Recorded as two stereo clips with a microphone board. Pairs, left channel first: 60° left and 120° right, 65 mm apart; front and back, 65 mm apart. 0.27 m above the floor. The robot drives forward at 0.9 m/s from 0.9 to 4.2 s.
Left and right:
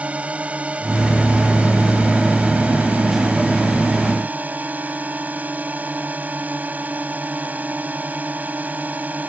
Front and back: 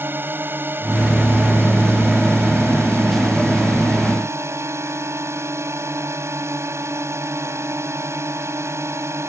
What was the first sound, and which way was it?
A drone, 170° right.